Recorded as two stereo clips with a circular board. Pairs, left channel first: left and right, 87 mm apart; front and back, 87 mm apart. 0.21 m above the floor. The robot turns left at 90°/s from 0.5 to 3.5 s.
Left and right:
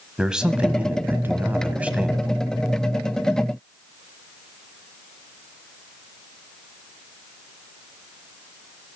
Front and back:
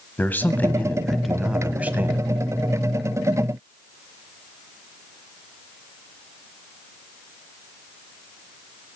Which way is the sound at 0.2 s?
20° right.